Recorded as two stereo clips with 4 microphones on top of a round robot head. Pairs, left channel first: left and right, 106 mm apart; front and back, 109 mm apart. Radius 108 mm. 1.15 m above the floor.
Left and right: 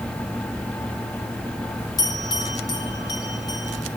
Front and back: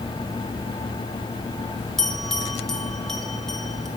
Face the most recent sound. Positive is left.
turn(degrees=85)